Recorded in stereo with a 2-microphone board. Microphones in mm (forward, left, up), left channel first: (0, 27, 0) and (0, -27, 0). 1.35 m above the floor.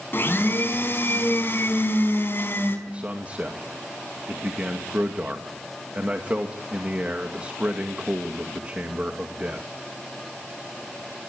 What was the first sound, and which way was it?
A blender, 40° left (ahead or behind).